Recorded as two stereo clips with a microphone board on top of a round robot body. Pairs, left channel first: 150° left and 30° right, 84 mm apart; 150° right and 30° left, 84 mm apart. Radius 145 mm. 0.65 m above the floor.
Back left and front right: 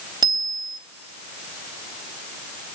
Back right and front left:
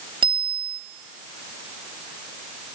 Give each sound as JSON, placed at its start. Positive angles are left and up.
{"t": 0.2, "sound": "a bicycle bell", "azimuth_deg": 10, "distance_m": 3.5}